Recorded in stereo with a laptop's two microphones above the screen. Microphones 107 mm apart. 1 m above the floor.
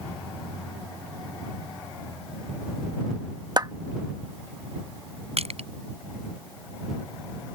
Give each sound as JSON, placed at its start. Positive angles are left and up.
{"t": 3.6, "sound": "a clap", "side_deg": -40}
{"t": 5.4, "sound": "crushing", "side_deg": -75}